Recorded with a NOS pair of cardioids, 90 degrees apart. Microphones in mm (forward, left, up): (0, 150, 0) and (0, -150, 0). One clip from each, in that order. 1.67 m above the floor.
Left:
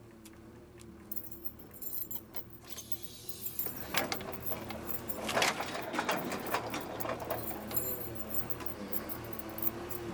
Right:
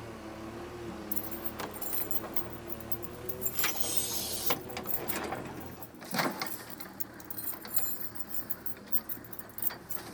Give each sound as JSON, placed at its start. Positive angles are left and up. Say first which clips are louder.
{"t": 1.1, "sound": "keys jangling", "louder": "right 12 dB", "azimuth_deg": -40}